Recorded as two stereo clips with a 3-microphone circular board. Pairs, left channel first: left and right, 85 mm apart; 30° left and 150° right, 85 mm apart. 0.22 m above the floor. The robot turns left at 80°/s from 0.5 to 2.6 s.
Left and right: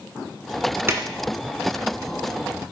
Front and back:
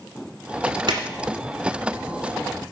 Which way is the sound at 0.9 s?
145° right.